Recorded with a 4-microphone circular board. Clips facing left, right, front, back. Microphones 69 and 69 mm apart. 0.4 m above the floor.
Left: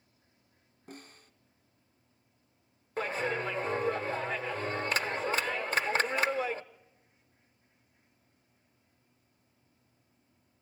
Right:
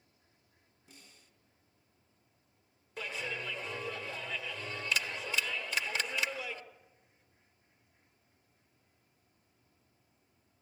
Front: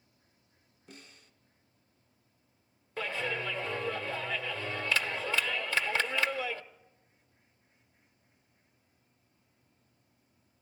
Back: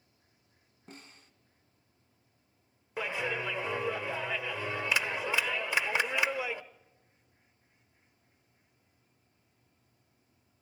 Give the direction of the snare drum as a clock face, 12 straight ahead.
8 o'clock.